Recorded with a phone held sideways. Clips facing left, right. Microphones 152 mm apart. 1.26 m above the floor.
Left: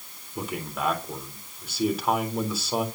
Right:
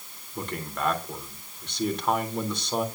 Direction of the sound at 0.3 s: 5° left (ahead or behind).